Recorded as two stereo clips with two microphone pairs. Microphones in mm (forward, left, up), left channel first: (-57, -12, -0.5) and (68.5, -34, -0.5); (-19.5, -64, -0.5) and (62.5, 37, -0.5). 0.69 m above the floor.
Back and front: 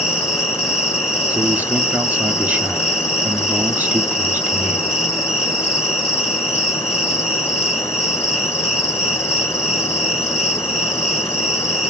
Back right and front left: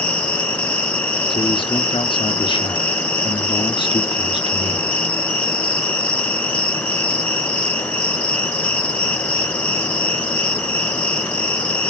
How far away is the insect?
About 3 m.